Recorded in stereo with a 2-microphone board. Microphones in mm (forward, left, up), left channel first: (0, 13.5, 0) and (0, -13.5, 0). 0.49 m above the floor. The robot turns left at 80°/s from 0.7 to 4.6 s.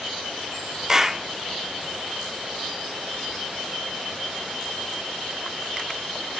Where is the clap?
20° right (ahead or behind), 0.6 m; by 1.2 s 10° right (ahead or behind), 0.6 m.